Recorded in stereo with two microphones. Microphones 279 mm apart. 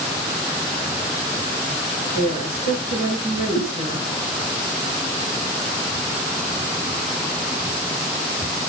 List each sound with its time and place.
2.1 s a woman speaking: 30° left (ahead or behind), 6.5 m
3.5 s a whoosh: 50° left (ahead or behind), 6.5 m